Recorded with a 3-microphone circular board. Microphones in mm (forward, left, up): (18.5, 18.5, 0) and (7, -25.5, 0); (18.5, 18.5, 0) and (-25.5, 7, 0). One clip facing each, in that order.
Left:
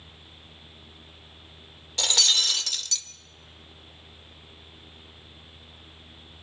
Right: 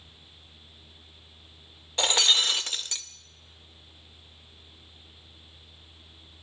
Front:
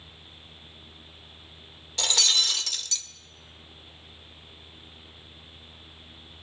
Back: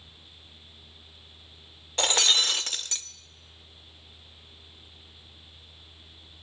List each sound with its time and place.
2.0 s breaking glass: 145° right, 0.6 m